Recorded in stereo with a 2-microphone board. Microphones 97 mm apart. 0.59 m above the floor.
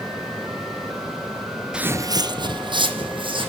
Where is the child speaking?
I don't hear a child speaking.